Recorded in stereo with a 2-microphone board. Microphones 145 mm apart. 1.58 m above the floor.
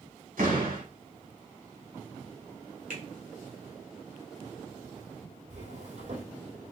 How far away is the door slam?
About 3 m.